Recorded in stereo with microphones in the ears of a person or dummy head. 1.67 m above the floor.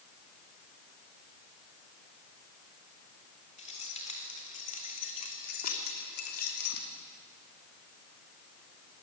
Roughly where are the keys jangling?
Left.